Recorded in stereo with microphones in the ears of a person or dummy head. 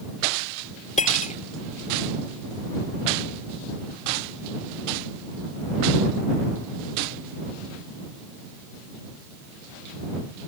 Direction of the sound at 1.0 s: 35° left (ahead or behind).